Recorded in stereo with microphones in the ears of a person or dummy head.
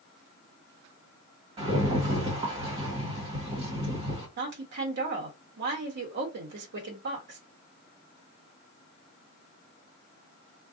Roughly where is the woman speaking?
Right.